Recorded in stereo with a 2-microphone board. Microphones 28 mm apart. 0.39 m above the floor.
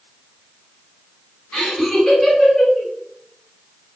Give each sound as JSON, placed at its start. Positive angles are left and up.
{"t": 1.5, "sound": "laughter", "side_deg": 10, "distance_m": 1.8}